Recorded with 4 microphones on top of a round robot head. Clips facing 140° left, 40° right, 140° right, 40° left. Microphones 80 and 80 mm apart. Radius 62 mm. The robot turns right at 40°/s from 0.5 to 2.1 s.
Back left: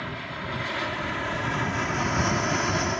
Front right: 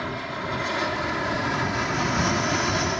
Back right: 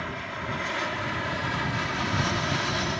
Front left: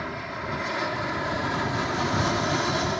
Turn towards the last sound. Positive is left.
turn(degrees=45)